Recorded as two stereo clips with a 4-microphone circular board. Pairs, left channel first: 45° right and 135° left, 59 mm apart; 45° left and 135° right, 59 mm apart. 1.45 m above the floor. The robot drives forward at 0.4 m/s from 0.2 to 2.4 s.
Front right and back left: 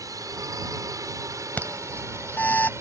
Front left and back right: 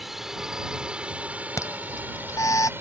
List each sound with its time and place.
0.0 s a drone: 140° left; by 2.8 s 175° left
1.6 s an alarm: 15° left